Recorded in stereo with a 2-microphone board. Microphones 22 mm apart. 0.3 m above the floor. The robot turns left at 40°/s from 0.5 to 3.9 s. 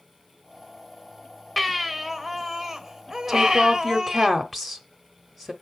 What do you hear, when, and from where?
1.6 s a baby crying: 5° left (ahead or behind), 1.0 m; by 4.3 s 20° right (ahead or behind), 1.0 m
3.3 s a woman speaking: 5° right (ahead or behind), 1.0 m; by 5.5 s 5° left (ahead or behind), 1.0 m